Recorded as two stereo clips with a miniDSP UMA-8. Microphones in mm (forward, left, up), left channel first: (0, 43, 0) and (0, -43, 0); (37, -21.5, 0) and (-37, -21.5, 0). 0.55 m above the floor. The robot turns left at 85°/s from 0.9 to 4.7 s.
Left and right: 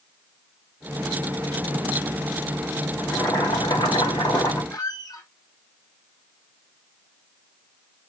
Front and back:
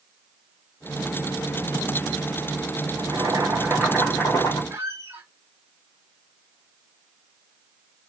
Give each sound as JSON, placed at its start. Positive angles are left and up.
{"t": 3.0, "sound": "boiling", "azimuth_deg": 170, "distance_m": 3.0}
{"t": 4.7, "sound": "a squeak", "azimuth_deg": 125, "distance_m": 1.4}